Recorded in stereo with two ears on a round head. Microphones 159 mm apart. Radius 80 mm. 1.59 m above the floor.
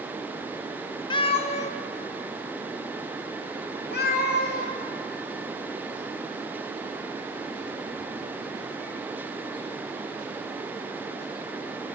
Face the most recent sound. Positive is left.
turn(degrees=55)  # may be behind; listen again after turning